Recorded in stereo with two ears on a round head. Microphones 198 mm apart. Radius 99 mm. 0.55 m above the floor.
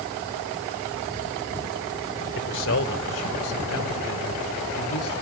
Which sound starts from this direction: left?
A man speaking, at 2.4 s.